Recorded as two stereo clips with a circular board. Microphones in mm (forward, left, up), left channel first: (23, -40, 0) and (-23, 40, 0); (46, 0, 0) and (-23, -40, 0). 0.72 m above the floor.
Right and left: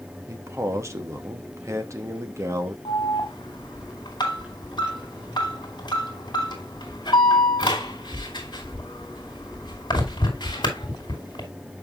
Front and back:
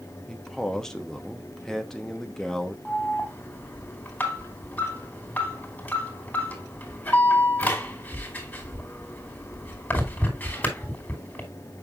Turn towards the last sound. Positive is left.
turn(degrees=-35)